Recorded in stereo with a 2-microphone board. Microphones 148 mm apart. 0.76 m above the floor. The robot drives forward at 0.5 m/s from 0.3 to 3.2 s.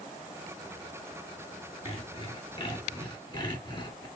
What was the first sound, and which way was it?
Sawing, 40° left (ahead or behind).